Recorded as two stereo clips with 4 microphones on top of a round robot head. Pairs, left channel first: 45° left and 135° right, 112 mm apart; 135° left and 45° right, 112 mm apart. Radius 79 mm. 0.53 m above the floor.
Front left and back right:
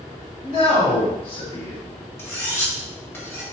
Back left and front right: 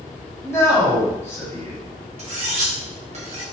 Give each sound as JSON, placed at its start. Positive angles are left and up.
{"t": 0.4, "sound": "a man speaking", "azimuth_deg": 75, "distance_m": 1.9}
{"t": 2.2, "sound": "cutlery clinking", "azimuth_deg": -25, "distance_m": 1.0}